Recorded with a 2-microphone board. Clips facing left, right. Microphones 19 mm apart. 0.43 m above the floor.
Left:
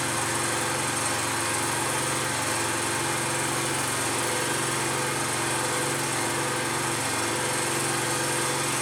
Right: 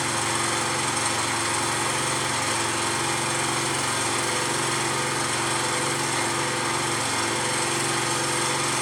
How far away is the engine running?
About 3 m.